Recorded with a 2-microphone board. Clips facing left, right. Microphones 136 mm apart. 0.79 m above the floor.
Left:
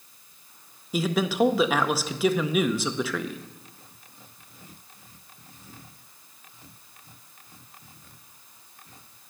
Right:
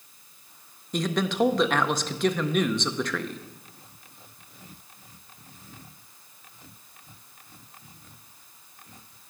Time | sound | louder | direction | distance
0.9 | a man speaking | left 1 dB | 5° left (ahead or behind) | 0.5 m